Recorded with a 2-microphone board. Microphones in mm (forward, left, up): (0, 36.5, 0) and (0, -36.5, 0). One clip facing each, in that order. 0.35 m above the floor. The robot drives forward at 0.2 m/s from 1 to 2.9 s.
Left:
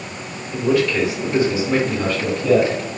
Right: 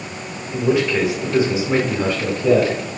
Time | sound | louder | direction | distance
0.5 | a man speaking | even | 20° right (ahead or behind) | 1.1 m